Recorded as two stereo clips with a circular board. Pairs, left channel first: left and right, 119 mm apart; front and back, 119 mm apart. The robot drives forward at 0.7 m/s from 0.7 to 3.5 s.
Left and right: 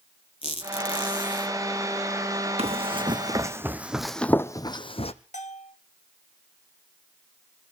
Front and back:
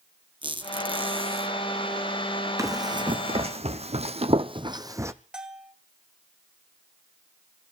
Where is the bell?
95° left, 1.3 m.